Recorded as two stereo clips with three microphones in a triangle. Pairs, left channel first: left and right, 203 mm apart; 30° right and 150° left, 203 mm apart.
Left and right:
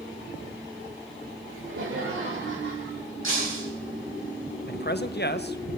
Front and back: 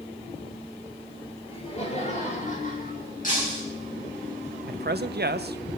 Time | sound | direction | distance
1.5 | laughter | 90° right | 6 m
3.2 | breaking glass | 80° right | 8.5 m
4.7 | a man speaking | 120° left | 0.7 m